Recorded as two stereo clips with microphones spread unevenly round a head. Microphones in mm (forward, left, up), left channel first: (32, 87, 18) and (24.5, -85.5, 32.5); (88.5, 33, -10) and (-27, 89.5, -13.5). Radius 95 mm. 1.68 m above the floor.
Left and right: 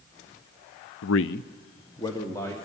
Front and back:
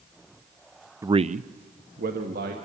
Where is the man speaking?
85° left, 0.6 m; by 2.5 s 165° left, 2.5 m.